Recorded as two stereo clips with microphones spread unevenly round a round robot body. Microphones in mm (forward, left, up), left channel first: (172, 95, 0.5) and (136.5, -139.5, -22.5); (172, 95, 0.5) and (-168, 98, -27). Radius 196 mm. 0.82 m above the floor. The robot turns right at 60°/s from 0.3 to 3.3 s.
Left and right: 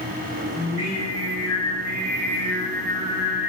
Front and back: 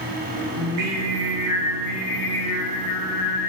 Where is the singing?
Straight behind, 1.0 m; by 3.5 s 15° right, 1.0 m.